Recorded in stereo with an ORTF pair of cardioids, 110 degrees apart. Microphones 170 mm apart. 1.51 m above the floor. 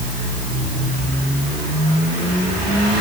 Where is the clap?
I don't hear a clap.